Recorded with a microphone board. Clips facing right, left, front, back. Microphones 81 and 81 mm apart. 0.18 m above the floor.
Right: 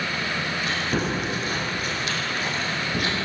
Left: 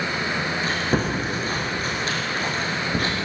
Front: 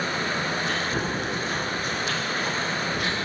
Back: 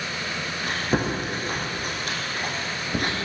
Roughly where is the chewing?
Behind left.